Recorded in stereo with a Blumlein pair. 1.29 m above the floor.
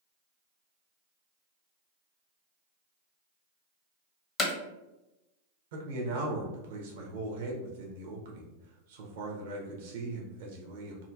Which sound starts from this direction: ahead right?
A man speaking, at 5.7 s.